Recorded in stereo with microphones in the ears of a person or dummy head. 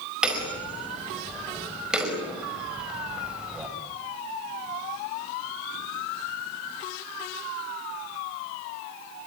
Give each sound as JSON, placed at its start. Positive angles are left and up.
{"t": 0.2, "sound": "hammering", "side_deg": -10, "distance_m": 4.5}